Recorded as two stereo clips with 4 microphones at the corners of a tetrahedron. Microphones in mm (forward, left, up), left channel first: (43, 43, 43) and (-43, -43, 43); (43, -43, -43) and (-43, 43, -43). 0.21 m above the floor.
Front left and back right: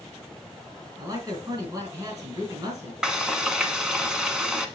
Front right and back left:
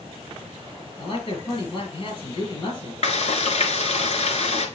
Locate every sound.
1.0 s a man speaking: 85° right, 3.5 m
3.0 s frying: 50° right, 0.9 m